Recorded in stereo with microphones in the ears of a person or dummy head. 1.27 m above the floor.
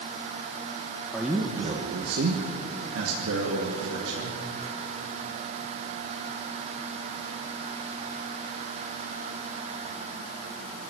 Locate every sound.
1.1 s a man speaking: 5° left (ahead or behind), 1.6 m; by 4.4 s 70° right (ahead or behind), 4.5 m